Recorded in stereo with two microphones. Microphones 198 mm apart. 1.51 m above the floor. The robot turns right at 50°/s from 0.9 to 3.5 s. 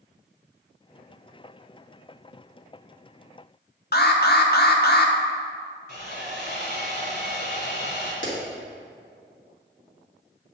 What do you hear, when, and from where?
3.9 s an alarm: 55° left (ahead or behind), 0.8 m
5.9 s sawing: 55° left (ahead or behind), 3 m
8.2 s a clap: 80° left, 2.5 m